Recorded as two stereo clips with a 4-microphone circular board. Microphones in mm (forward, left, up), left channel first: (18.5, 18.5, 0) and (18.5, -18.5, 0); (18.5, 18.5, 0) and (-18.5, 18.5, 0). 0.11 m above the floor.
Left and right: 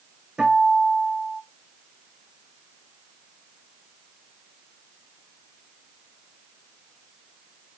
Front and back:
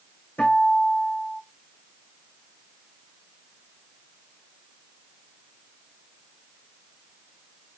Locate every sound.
0.4 s a guitar: 20° right, 4 m